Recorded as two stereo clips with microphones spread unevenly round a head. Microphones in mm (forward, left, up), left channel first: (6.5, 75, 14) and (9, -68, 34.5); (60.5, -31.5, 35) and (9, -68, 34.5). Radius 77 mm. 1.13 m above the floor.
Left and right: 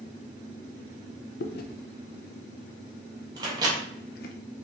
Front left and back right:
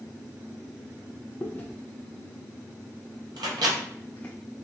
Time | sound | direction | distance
1.4 | chewing | 110° left | 0.5 m
3.4 | a microwave | 150° right | 0.9 m